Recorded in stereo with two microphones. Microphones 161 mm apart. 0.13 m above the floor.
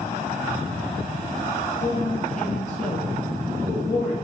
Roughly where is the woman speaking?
Left.